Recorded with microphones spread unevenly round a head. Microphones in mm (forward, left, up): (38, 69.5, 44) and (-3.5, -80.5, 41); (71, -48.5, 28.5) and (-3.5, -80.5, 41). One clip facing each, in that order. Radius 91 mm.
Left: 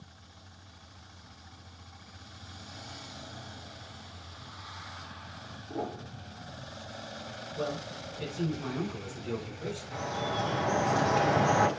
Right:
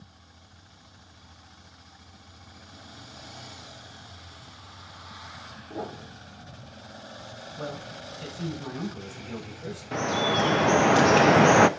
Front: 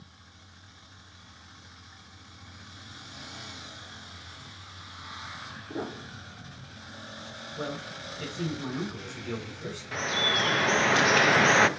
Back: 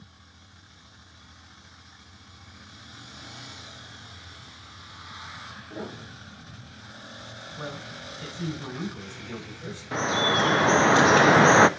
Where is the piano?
5° right, 3 m.